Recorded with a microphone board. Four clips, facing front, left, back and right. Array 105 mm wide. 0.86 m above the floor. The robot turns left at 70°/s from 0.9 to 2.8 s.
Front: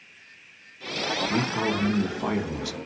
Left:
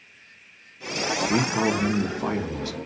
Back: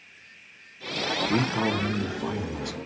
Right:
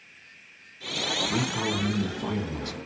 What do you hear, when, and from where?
1.3 s a man speaking: 115° left, 1.0 m; by 2.8 s 15° left, 1.0 m